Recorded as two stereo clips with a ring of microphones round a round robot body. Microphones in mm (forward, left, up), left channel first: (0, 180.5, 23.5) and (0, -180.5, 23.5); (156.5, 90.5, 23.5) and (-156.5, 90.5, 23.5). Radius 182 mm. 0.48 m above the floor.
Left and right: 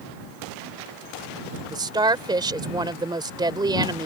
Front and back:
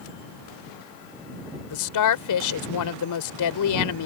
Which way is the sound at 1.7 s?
15° right.